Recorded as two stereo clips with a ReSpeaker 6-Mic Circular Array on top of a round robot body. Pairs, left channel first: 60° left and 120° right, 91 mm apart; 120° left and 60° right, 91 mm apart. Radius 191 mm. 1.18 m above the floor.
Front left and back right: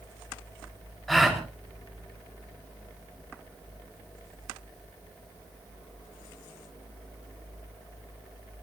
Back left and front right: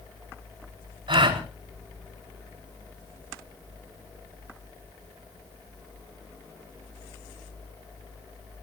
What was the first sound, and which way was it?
A gasp, 30° right.